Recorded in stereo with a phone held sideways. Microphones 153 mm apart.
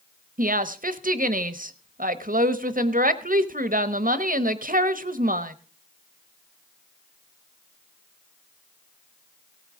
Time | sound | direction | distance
0.4 | a woman speaking | 65° right (ahead or behind) | 1.0 m